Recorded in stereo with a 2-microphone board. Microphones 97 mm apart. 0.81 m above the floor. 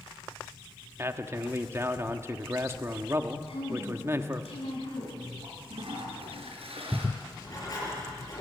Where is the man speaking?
25° right (ahead or behind), 1.3 m.